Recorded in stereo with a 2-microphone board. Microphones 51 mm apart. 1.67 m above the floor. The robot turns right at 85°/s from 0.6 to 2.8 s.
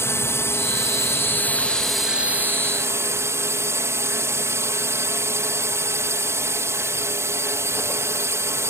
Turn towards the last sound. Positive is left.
turn(degrees=-105)